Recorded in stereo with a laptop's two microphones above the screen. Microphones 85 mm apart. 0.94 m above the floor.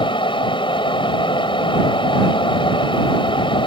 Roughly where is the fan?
Left.